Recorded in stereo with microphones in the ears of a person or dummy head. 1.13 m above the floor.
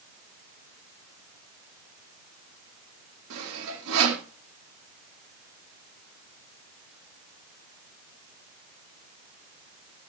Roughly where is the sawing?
Right.